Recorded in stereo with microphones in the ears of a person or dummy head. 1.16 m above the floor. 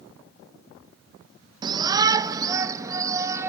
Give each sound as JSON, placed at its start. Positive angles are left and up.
{"t": 1.6, "sound": "a shout", "side_deg": -25, "distance_m": 1.0}